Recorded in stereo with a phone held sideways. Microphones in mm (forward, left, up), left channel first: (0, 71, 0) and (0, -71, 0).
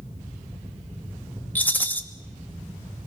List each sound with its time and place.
0.0 s a fan: 15° right (ahead or behind), 5 m
1.6 s a rattle: 10° left (ahead or behind), 1.1 m